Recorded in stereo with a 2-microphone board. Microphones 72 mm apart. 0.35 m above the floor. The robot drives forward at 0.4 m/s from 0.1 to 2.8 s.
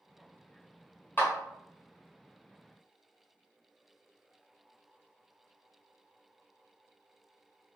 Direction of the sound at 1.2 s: 30° left (ahead or behind).